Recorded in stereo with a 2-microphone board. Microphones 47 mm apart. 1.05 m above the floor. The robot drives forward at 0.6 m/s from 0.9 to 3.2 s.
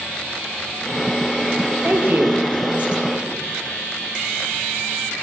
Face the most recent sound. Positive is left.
turn(degrees=-25)  # may be behind; listen again after turning